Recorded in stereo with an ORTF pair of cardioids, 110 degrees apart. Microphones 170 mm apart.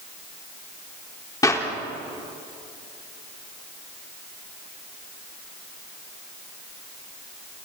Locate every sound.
1.4 s a clap: 20° left, 4 m